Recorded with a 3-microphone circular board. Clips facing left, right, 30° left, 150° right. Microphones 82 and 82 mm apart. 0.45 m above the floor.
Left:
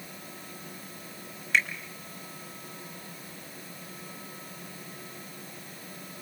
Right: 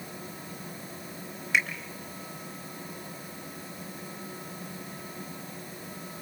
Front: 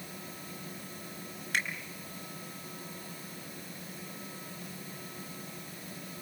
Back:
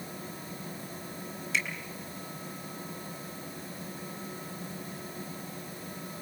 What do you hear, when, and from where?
1.5 s a finger snap: 10° right, 5 m